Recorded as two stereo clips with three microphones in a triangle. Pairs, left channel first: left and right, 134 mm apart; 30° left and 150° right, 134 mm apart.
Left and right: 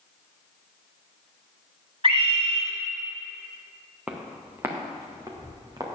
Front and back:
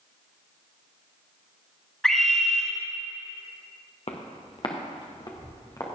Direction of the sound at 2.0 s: 55° right.